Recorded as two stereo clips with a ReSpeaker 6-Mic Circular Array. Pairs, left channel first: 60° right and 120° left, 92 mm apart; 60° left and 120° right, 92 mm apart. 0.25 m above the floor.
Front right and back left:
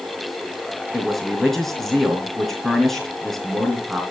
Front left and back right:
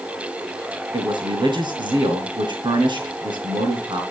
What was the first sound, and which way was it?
A man speaking, 145° right.